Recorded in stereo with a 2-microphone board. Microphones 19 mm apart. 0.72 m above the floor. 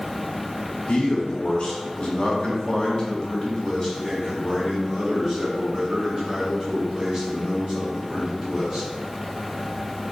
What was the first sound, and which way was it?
A man speaking, 50° left (ahead or behind).